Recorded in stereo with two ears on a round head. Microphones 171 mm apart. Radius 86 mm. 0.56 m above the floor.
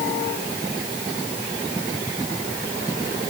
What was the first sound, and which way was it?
Only background noise.